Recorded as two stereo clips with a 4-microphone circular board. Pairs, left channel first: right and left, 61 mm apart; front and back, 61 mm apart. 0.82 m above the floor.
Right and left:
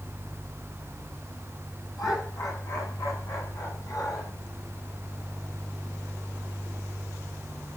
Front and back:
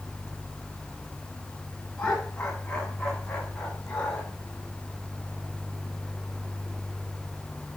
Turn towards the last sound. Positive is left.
turn(degrees=-70)